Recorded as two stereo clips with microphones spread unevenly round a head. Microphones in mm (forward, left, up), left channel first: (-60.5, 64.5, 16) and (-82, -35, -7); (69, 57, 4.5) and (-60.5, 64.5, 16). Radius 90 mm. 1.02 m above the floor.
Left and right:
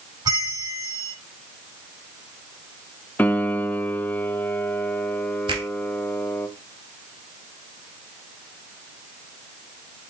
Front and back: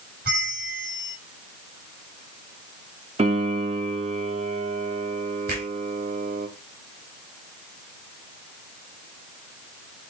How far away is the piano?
About 1.1 m.